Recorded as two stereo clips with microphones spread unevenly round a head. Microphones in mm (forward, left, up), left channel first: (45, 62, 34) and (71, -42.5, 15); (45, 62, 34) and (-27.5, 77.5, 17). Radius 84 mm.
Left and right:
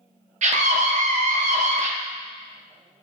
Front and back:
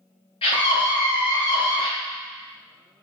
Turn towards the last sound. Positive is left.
turn(degrees=-60)